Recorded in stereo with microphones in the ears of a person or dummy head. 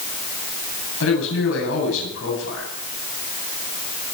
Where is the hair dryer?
No hair dryer in this recording.